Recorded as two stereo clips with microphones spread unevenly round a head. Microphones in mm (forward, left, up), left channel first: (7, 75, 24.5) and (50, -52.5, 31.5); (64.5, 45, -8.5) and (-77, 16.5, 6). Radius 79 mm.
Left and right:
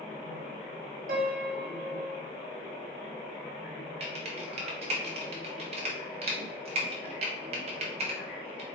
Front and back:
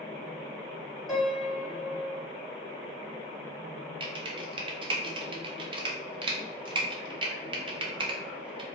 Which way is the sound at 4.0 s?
115° right.